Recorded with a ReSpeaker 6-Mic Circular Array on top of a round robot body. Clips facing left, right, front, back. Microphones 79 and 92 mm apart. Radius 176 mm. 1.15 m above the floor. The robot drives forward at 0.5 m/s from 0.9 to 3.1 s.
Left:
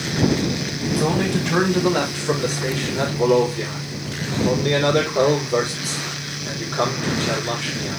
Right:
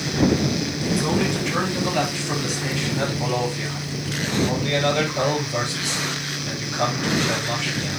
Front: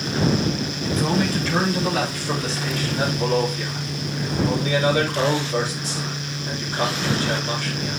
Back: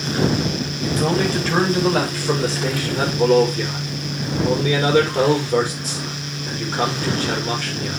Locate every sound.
0.8 s a man speaking: 120° left, 4 m; by 8.0 s 135° left, 4.5 m